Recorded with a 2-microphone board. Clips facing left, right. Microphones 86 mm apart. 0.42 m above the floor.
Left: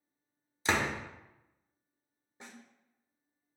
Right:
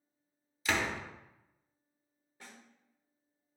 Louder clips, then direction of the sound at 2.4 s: Left 3 dB; 20° left (ahead or behind).